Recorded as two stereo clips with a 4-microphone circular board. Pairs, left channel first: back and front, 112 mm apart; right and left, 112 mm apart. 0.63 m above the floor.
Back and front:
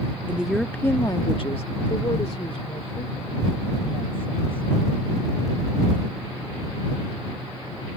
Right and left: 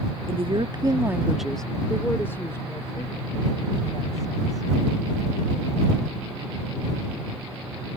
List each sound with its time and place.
0.3 s a woman speaking: 75° left; by 4.7 s 145° right